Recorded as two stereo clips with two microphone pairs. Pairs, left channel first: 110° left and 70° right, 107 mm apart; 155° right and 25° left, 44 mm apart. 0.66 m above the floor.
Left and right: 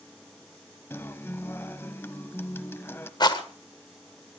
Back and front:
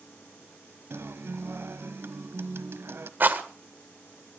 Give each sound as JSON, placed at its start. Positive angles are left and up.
{"t": 0.9, "sound": "a guitar", "azimuth_deg": 45, "distance_m": 1.2}
{"t": 3.2, "sound": "a rattle", "azimuth_deg": 65, "distance_m": 1.7}